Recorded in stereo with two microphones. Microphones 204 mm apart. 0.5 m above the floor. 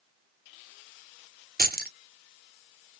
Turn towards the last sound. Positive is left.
turn(degrees=-45)  # may be behind; listen again after turning